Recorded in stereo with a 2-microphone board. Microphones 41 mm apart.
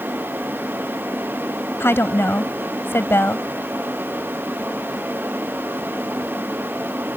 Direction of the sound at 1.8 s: 70° left (ahead or behind).